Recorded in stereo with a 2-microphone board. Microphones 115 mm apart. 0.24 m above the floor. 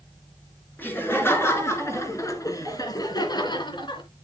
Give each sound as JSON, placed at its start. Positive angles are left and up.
{"t": 0.8, "sound": "laughter", "side_deg": 15, "distance_m": 3.5}